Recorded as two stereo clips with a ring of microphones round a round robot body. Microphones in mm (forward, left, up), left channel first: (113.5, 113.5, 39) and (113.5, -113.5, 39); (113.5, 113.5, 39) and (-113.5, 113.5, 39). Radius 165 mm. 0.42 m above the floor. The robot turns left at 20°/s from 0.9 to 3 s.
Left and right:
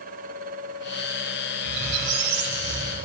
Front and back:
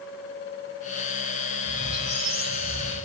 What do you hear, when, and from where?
1.6 s a squeak: 100° right, 0.7 m; by 3.1 s 125° right, 0.7 m